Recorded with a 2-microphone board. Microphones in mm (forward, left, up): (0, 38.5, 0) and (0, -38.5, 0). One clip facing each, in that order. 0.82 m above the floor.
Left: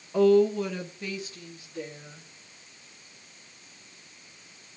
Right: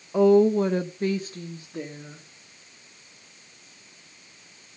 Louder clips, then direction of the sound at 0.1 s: Right 3 dB; 15° right (ahead or behind).